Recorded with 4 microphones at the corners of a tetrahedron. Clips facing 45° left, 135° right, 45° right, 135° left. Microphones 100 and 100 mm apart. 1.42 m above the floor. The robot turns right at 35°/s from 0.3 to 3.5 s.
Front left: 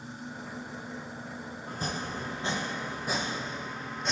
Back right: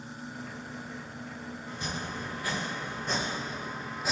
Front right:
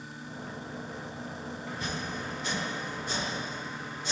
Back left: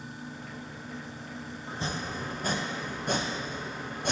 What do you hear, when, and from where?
1.7 s chopping: 75° left, 0.6 m; by 4.1 s 140° left, 0.6 m